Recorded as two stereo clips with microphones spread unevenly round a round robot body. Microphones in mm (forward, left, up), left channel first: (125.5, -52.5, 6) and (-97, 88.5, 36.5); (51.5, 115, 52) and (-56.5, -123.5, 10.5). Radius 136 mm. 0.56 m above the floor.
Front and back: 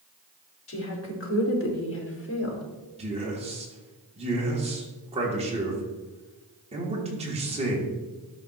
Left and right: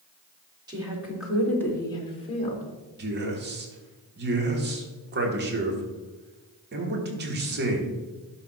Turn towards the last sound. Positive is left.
turn(degrees=-145)